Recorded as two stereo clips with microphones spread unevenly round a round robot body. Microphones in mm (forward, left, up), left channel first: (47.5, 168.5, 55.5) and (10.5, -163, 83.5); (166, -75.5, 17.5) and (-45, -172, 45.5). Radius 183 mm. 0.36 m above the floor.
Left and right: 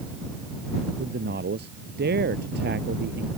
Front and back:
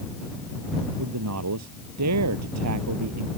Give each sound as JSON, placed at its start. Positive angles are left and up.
{"t": 1.0, "sound": "a man speaking", "azimuth_deg": -160}